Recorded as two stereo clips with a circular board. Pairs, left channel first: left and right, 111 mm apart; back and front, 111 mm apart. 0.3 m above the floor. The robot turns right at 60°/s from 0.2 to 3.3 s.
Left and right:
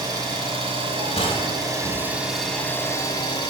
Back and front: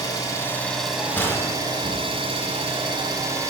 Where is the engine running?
130° right, 1.5 m; by 3.5 s 55° left, 1.5 m.